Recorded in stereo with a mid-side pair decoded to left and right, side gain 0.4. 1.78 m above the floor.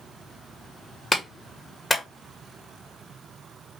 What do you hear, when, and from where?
1.1 s a clap: 15° left, 1.7 m